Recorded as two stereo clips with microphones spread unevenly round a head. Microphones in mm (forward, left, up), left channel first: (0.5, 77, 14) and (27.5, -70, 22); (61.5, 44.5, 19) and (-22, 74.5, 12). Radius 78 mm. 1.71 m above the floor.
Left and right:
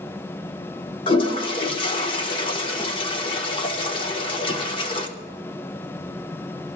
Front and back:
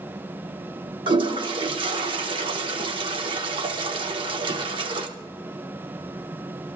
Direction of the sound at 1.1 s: 155° left.